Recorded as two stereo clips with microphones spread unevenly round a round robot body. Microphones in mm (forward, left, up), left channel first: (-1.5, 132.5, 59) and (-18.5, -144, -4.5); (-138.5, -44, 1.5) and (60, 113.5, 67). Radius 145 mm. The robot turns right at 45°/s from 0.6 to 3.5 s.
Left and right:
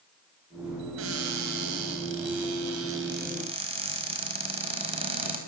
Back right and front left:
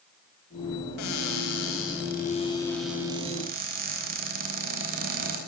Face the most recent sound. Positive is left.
turn(degrees=-25)